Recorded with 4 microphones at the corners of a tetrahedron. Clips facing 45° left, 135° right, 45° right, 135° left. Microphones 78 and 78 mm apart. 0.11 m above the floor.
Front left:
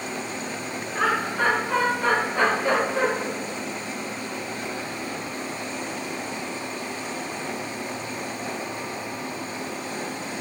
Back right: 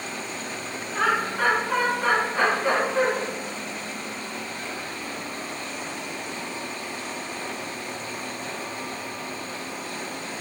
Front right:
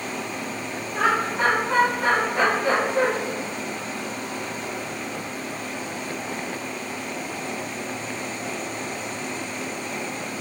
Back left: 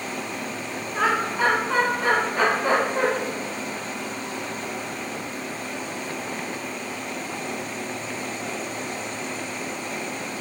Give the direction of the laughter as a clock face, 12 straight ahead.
2 o'clock.